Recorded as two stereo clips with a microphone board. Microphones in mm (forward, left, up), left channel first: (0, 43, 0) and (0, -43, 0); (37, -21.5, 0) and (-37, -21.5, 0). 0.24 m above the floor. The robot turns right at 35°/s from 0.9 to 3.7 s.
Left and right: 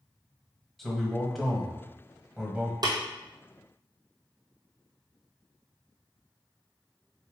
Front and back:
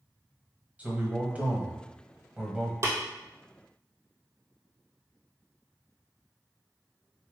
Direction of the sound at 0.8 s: 170° left.